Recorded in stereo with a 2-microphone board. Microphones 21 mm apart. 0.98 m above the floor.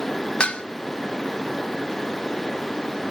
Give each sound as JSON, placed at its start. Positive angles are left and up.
{"t": 0.4, "sound": "dishes clattering", "side_deg": 65, "distance_m": 0.5}